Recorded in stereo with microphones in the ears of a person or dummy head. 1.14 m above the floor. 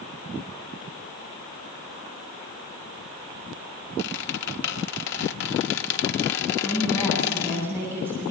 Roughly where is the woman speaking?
Centre.